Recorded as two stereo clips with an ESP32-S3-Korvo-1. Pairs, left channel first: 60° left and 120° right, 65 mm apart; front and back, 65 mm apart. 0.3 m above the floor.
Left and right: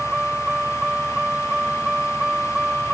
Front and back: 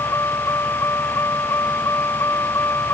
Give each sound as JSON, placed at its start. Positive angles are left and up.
{"t": 0.0, "sound": "a vehicle", "azimuth_deg": -40}